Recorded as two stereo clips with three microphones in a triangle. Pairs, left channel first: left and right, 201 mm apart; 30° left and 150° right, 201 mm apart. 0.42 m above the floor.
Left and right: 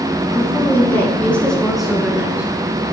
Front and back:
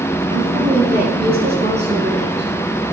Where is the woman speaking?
160° left, 4.5 m; by 2.5 s 170° right, 5 m.